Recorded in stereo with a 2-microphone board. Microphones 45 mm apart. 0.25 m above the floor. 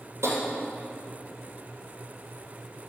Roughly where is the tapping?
Right.